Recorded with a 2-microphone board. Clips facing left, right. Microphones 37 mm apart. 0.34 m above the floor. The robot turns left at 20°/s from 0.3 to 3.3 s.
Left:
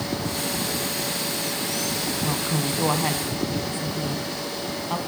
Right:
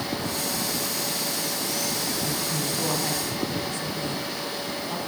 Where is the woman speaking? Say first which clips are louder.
Left 3 dB; 50° left (ahead or behind), 3.5 m; by 5.0 s 30° left (ahead or behind), 3.5 m.